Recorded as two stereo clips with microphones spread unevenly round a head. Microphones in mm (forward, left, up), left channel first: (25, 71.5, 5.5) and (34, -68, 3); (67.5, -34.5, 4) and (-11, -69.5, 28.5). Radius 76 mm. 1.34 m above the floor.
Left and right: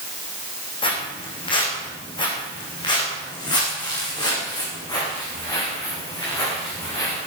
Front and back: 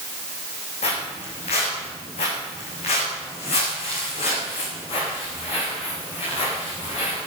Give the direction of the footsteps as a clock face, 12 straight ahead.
11 o'clock.